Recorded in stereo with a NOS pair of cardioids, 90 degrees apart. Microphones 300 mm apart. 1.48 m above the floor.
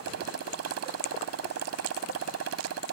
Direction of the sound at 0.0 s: 60° right.